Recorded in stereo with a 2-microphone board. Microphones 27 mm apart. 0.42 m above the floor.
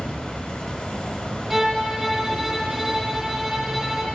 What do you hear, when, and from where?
0.0 s an insect: 55° left (ahead or behind), 0.8 m
1.5 s a violin: 10° right (ahead or behind), 0.6 m